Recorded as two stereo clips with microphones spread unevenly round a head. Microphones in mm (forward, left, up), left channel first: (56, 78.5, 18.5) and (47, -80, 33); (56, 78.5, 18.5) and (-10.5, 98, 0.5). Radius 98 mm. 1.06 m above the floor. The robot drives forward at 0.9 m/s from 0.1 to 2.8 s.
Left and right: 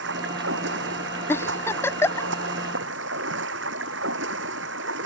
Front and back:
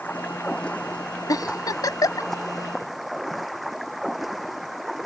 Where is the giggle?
10° left.